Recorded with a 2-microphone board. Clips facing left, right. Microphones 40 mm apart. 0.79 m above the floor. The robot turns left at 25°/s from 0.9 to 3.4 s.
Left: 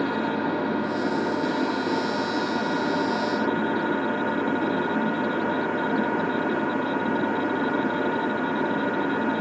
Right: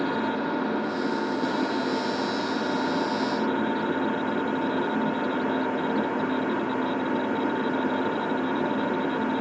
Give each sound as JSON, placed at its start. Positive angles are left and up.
{"t": 0.0, "sound": "an engine running", "azimuth_deg": 150, "distance_m": 5.5}